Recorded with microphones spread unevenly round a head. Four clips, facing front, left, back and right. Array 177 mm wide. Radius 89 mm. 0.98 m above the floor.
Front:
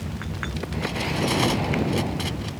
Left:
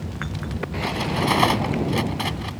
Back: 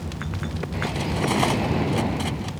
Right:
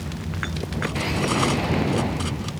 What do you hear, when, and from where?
0.8 s cutlery clinking: 120° left